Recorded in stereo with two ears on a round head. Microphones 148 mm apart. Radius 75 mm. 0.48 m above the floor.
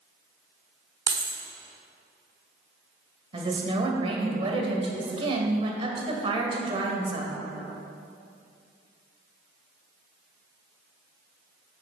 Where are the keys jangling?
20° right (ahead or behind), 1.0 m.